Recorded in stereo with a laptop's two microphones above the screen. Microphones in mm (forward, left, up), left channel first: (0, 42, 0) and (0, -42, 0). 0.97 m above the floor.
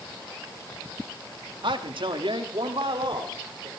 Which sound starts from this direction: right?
A man speaking, at 1.6 s.